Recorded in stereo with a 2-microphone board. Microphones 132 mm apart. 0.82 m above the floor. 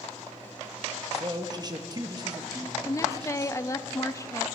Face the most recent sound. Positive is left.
turn(degrees=25)  # may be behind; listen again after turning